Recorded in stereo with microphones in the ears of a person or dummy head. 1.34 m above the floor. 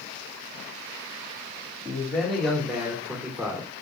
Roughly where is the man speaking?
Centre.